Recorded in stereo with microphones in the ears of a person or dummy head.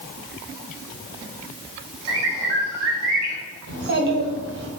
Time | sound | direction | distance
2.1 | a bird | 70° right (ahead or behind) | 0.8 m
3.7 | a child speaking | 60° right (ahead or behind) | 1.0 m